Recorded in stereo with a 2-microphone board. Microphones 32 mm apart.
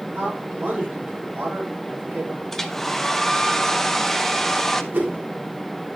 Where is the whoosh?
80° right, 3.5 m.